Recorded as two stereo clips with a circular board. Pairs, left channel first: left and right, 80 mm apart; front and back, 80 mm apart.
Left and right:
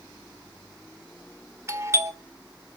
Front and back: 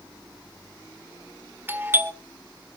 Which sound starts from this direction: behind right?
A doorbell, at 1.7 s.